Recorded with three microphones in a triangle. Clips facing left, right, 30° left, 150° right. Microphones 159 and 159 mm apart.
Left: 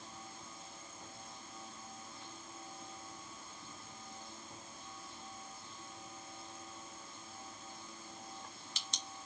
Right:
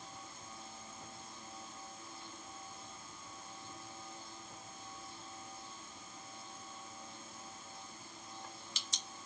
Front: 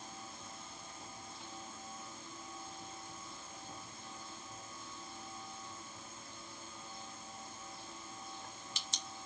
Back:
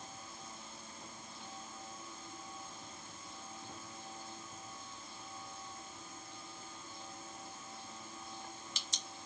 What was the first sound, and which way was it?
Only background noise.